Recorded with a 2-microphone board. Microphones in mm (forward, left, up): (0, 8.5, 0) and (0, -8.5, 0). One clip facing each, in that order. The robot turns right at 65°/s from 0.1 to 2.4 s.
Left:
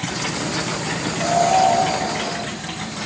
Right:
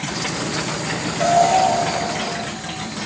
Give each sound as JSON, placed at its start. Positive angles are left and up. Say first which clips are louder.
{"t": 1.2, "sound": "an alarm", "louder": "right 2 dB", "side_deg": -45, "distance_m": 5.5}